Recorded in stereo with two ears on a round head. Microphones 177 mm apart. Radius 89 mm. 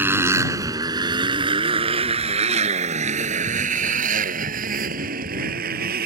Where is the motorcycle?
10° right (ahead or behind); by 6.1 s 50° right (ahead or behind).